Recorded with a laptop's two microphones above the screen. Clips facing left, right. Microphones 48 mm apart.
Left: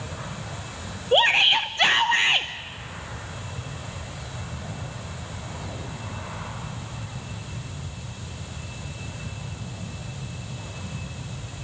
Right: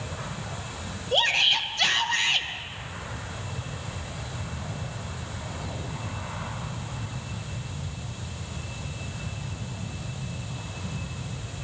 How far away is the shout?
About 0.8 m.